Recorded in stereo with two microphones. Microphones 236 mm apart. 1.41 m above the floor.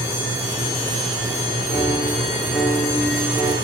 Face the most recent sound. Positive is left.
turn(degrees=-10)  # may be behind; listen again after turning